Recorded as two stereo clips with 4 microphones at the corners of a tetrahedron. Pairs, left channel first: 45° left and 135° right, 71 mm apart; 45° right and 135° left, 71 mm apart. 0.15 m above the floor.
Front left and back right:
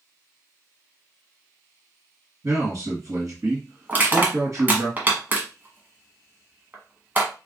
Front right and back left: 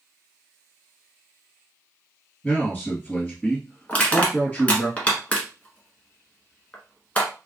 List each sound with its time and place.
2.4 s a man speaking: 110° right, 2.5 m
3.9 s crushing: 95° right, 1.2 m